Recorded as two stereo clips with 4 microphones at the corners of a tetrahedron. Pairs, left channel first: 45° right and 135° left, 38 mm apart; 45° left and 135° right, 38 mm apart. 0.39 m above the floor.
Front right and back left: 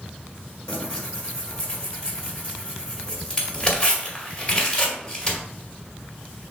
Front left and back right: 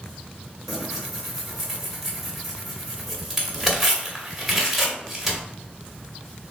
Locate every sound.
0.7 s tearing paper: 55° right, 1.5 m